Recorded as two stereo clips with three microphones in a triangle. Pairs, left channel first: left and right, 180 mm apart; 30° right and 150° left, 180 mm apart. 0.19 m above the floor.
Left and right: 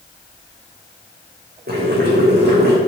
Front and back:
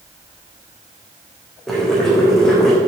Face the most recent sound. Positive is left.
turn(degrees=-115)